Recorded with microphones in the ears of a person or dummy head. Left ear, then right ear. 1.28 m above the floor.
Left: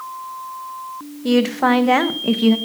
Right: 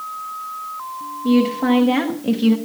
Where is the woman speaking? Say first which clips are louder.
Left 2 dB; 55° left (ahead or behind), 1.2 m; by 2.6 s 15° left (ahead or behind), 0.9 m.